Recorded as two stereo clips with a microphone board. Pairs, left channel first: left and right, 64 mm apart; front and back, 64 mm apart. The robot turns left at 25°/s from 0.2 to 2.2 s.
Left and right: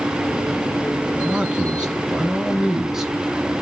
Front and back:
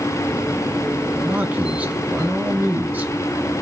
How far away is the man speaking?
About 1.4 m.